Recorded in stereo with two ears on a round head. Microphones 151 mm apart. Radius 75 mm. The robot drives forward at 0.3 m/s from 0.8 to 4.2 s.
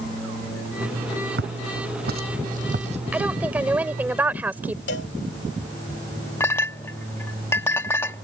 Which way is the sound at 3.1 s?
10° right (ahead or behind).